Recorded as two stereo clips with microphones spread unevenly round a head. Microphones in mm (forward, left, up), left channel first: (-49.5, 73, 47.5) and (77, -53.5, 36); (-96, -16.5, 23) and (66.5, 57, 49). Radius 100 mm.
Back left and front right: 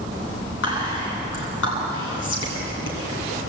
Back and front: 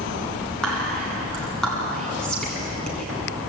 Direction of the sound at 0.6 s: 120° left.